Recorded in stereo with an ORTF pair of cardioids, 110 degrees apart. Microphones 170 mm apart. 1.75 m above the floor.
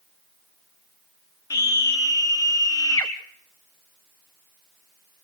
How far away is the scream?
About 1.2 m.